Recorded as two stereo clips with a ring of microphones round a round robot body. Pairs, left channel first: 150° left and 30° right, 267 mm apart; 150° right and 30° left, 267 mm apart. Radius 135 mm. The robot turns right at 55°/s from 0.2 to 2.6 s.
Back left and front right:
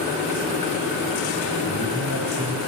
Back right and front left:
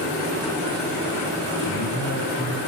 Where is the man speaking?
150° right, 2.5 m; by 2.6 s 95° right, 2.5 m.